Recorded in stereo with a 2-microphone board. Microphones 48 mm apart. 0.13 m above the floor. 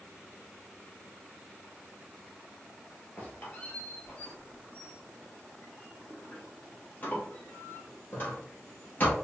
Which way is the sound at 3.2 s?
40° left (ahead or behind).